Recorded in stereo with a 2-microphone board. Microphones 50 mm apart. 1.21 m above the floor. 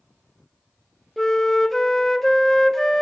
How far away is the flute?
About 0.9 m.